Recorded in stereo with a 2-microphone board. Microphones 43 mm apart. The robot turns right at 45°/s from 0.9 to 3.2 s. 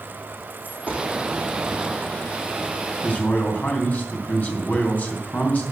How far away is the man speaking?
About 3 m.